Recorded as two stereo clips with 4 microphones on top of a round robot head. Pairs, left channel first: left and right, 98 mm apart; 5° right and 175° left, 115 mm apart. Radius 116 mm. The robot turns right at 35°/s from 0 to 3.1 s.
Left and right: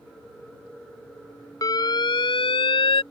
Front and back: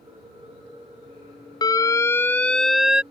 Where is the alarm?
45° left; by 3.0 s 95° left.